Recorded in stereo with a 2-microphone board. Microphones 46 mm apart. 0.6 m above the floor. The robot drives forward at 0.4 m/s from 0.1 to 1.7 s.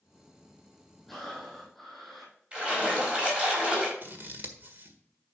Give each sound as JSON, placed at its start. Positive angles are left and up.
{"t": 1.1, "sound": "breathing", "side_deg": 5, "distance_m": 5.5}
{"t": 2.5, "sound": "a splash", "side_deg": -20, "distance_m": 4.0}
{"t": 4.0, "sound": "scissors", "side_deg": -45, "distance_m": 1.6}